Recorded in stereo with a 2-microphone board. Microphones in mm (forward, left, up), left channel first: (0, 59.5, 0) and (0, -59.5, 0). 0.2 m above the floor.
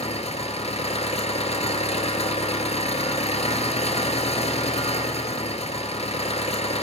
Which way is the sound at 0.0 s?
65° left (ahead or behind).